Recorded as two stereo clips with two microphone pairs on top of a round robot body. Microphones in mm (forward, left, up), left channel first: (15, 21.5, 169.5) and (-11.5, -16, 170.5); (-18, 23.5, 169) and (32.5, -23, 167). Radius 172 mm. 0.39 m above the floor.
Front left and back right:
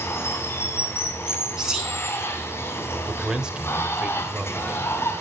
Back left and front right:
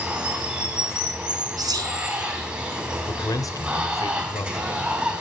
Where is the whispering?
50° right, 5 m.